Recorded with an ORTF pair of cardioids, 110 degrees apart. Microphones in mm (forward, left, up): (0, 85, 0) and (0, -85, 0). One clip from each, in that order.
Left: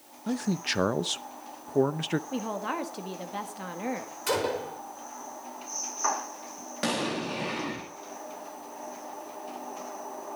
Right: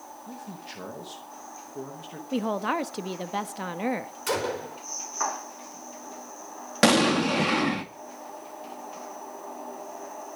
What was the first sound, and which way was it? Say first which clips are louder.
A man speaking: left 13 dB; 70° left.